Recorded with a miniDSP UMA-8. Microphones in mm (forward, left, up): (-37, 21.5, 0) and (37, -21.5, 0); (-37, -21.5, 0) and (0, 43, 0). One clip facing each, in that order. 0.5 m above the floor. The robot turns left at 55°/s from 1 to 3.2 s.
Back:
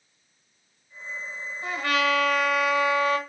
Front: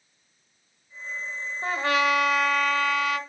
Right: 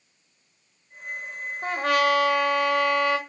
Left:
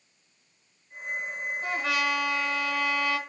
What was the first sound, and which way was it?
A trumpet, 75° right.